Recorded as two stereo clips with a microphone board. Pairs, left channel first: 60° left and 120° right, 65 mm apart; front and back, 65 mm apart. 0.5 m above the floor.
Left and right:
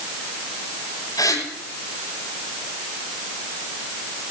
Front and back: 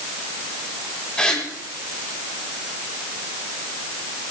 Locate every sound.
1.2 s a gasp: 80° left, 8 m